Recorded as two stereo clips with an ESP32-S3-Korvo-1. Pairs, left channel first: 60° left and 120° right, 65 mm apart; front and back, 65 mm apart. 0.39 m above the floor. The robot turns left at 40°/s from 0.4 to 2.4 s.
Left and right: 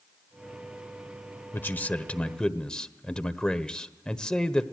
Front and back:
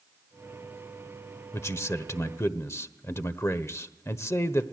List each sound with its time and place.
1.5 s a man speaking: 20° left, 1.1 m; by 4.6 s 15° right, 1.1 m